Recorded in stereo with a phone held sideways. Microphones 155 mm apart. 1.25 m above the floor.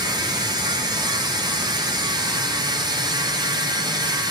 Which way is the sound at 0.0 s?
25° right (ahead or behind).